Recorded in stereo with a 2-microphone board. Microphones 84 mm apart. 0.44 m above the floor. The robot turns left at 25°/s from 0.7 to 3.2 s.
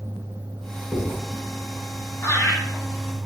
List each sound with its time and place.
0.9 s writing: 15° right (ahead or behind), 1.9 m; by 1.2 s 10° right (ahead or behind), 1.9 m
2.2 s laughter: 30° left (ahead or behind), 1.2 m; by 2.6 s 35° left (ahead or behind), 1.2 m